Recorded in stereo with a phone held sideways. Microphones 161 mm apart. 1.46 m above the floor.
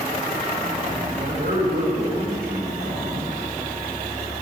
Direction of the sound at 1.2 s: 80° right.